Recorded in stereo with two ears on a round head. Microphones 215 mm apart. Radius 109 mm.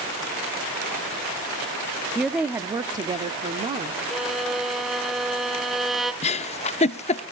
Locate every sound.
2.1 s a woman speaking: centre (ahead or behind), 0.7 m; by 4.0 s 25° right (ahead or behind), 1.1 m
4.1 s a violin: centre (ahead or behind), 0.7 m
6.2 s a giggle: 25° left (ahead or behind), 0.5 m